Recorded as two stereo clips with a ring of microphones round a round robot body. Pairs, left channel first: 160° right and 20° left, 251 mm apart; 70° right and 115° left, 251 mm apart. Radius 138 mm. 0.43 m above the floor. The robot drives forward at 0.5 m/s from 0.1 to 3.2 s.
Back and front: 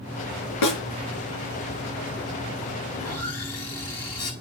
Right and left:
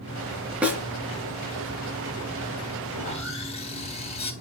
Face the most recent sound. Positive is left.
turn(degrees=-135)